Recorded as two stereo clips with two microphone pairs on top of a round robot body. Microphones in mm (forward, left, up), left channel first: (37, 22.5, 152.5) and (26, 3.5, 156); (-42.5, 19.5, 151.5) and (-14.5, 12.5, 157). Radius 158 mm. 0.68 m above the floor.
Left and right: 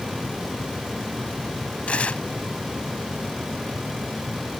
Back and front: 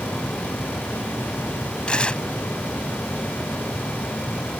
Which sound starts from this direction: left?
Tearing paper, at 1.9 s.